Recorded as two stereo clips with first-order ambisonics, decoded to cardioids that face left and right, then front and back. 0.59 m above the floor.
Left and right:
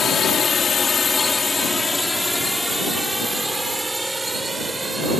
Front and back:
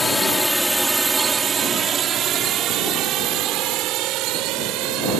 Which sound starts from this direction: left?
A drone, at 0.0 s.